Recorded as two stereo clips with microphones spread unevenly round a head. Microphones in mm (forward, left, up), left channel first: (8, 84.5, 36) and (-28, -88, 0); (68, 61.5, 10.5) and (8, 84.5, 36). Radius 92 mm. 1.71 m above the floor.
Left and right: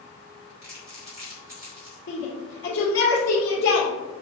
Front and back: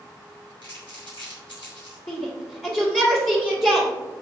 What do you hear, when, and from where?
0.6 s crumpling: 25° right, 3 m
2.1 s a shout: 45° left, 1.7 m